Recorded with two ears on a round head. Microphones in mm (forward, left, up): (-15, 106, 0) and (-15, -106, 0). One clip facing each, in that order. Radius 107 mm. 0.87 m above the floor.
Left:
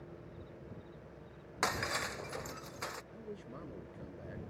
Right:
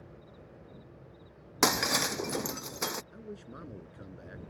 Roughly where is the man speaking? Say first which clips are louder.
Right 2 dB; centre.